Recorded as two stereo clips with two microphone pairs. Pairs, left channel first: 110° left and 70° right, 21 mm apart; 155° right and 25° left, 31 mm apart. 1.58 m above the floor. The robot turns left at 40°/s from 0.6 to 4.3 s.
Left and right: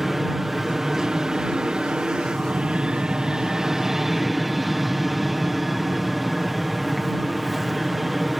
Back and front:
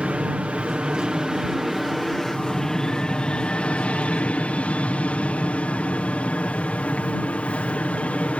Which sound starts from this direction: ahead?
An aircraft, at 0.0 s.